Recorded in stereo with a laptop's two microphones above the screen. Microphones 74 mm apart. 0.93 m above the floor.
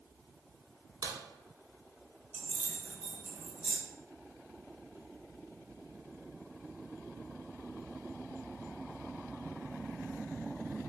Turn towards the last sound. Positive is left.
turn(degrees=-15)  # may be behind; listen again after turning